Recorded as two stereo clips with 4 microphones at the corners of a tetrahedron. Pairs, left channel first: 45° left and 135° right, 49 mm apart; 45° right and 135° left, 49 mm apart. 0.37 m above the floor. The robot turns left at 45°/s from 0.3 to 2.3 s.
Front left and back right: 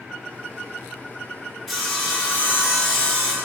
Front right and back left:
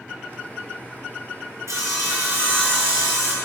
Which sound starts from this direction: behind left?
Sawing, at 1.7 s.